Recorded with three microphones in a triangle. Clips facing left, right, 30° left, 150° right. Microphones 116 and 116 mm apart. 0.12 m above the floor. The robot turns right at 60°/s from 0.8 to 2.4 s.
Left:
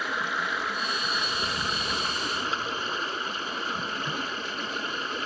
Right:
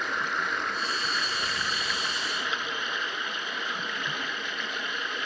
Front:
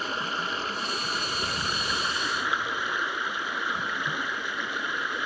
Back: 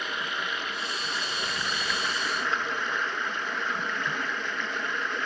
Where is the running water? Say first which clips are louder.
Even, front 2 dB; 5° left, 0.8 m; by 5.2 s 105° left, 0.8 m.